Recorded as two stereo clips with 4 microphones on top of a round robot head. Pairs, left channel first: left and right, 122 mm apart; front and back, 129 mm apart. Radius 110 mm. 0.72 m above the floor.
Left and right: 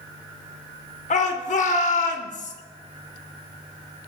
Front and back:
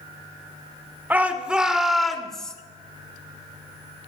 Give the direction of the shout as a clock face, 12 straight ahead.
8 o'clock.